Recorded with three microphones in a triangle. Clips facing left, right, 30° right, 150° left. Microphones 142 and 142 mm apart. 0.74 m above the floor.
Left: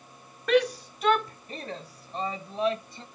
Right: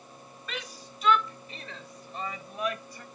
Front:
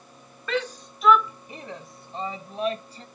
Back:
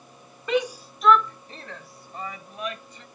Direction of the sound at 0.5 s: 80° left.